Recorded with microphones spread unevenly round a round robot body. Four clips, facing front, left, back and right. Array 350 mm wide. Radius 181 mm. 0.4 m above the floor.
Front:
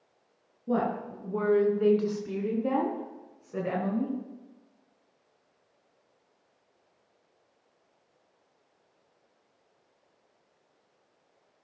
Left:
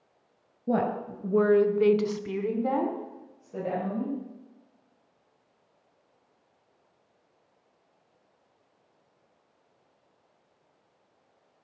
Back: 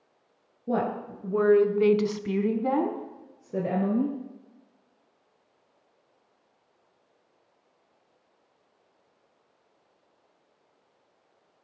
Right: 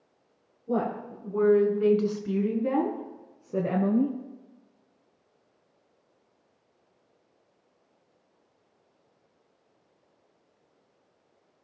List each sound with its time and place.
0.7 s a woman speaking: 95° left, 3 m; by 4.1 s 115° right, 3 m